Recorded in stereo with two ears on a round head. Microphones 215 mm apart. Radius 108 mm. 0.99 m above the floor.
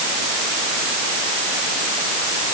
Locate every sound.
Only background noise.